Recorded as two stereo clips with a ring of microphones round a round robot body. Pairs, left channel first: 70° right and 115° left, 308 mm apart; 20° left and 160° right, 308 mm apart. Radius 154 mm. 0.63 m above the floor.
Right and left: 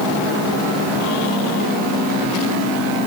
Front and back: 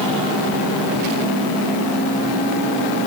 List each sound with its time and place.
Only background noise.